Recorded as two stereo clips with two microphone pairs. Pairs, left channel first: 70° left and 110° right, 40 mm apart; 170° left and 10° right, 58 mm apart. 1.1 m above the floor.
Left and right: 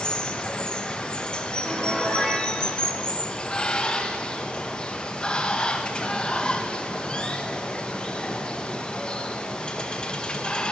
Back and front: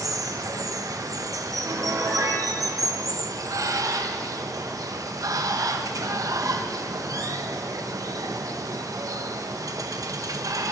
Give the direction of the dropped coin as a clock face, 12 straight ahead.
No dropped coin in this recording.